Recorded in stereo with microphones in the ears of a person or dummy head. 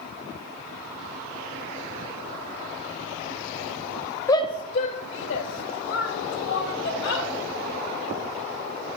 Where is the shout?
20° left (ahead or behind), 0.6 m; by 7.3 s 80° left, 2 m.